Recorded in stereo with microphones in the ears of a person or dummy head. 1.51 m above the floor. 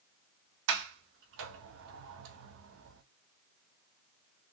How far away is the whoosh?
I don't hear a whoosh.